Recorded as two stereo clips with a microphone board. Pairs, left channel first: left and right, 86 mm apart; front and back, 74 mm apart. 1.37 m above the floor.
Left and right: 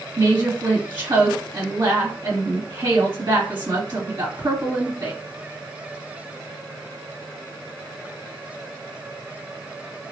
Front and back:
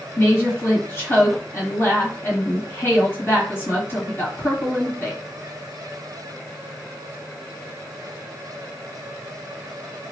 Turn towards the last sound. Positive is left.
turn(degrees=-55)